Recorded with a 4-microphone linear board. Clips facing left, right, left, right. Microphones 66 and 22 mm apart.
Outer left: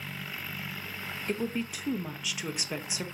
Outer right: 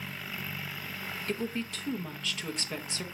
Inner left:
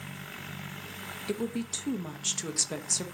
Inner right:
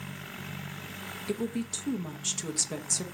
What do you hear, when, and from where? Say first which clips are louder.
1.3 s a woman speaking: outer left 2 dB, even; 10° left (ahead or behind), 0.8 m